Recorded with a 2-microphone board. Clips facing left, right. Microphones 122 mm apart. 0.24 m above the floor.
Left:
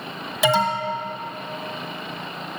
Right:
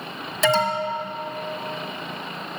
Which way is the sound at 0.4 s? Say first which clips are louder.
Even; 10° left (ahead or behind).